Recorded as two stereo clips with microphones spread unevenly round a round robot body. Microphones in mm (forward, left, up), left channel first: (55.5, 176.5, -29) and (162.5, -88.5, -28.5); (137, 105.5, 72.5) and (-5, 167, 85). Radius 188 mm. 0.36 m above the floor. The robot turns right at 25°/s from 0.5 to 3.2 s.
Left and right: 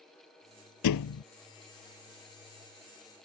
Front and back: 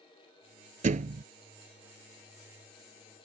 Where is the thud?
125° left; by 1.2 s 135° left.